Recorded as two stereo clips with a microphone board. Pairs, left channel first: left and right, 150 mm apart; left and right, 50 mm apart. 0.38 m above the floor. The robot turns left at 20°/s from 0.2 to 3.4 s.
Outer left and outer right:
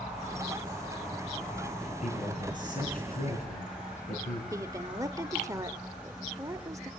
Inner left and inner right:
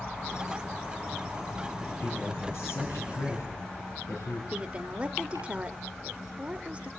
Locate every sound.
1.9 s a man speaking: 130° left, 5 m; by 4.4 s 95° left, 5 m
4.5 s a woman speaking: 20° right (ahead or behind), 1.2 m